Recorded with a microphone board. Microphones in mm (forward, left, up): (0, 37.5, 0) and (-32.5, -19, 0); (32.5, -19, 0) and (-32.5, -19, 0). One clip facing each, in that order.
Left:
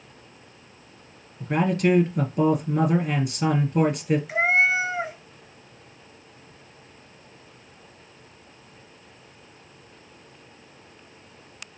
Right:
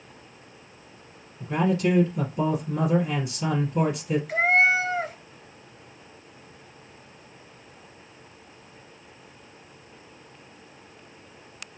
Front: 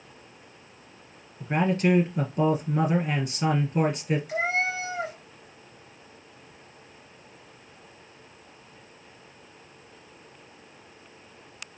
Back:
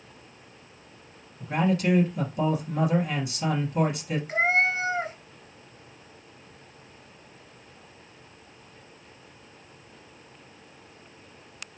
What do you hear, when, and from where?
1.4 s a man speaking: 50° left, 2.5 m
4.3 s a cat meowing: 140° left, 1.0 m